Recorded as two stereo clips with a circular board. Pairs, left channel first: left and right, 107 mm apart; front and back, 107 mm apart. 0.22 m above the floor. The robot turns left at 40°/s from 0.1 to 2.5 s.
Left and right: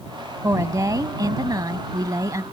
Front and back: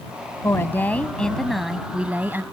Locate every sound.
0.4 s a woman speaking: 45° right; by 2.4 s 125° right